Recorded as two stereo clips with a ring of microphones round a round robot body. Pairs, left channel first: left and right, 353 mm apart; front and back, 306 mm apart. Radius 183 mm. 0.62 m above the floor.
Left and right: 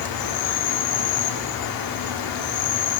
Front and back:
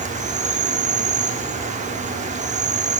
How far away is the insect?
About 0.9 m.